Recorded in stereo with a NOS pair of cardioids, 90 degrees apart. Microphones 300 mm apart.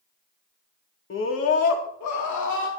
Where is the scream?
40° left, 2 m; by 2.7 s 80° left, 2.5 m.